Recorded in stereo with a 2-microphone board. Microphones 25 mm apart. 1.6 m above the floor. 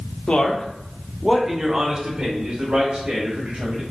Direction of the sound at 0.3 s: 55° left (ahead or behind).